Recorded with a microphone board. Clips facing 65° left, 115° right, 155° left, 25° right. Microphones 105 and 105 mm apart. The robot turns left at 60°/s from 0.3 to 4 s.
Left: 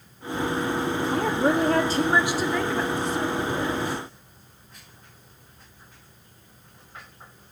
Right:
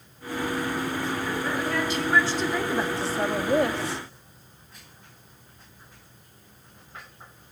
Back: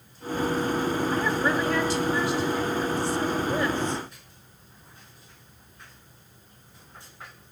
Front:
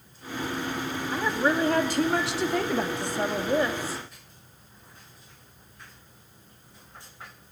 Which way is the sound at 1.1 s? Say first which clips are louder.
Left 6 dB, front 5 dB; 60° left.